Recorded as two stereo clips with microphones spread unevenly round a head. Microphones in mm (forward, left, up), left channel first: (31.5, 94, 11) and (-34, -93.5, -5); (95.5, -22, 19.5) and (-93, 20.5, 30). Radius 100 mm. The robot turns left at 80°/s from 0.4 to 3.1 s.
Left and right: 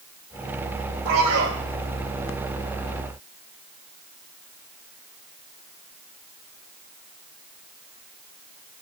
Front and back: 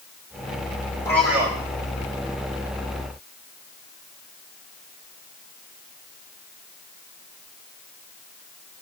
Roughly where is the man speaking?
Right.